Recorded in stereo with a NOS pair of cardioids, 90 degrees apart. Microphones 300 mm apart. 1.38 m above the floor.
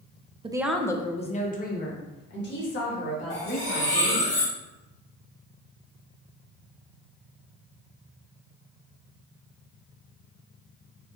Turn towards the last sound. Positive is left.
turn(degrees=40)